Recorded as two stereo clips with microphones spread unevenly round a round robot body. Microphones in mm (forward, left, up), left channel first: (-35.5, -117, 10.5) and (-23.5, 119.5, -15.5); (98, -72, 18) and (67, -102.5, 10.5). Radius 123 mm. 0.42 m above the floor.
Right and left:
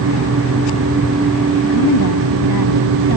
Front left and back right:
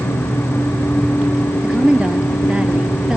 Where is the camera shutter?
I don't hear a camera shutter.